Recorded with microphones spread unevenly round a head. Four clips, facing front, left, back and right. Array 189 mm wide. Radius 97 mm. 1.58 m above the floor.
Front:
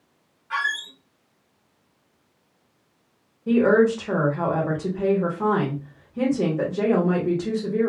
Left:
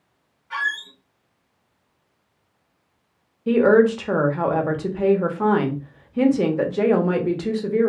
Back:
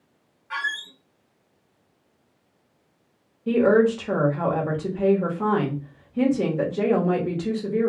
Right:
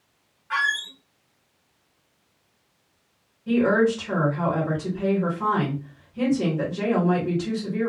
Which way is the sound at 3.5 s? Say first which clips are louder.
Left 5 dB, even; 55° left.